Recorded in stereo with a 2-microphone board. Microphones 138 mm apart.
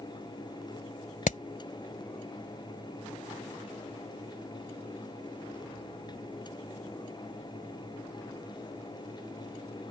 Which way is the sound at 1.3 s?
70° left (ahead or behind).